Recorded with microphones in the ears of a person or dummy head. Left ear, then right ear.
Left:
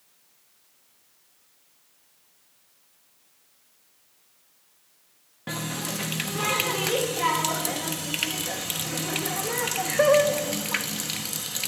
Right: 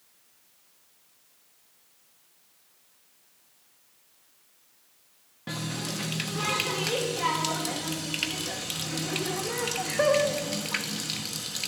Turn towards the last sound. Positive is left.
turn(degrees=15)  # may be behind; listen again after turning